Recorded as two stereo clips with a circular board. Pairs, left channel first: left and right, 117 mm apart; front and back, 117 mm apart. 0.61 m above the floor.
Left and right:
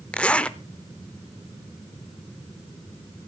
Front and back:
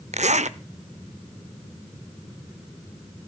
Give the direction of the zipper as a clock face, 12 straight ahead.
6 o'clock.